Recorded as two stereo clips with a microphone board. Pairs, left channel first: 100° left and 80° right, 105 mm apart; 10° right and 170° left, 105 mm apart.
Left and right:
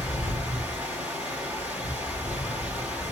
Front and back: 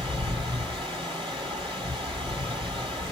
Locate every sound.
0.0 s running water: 155° right, 2.5 m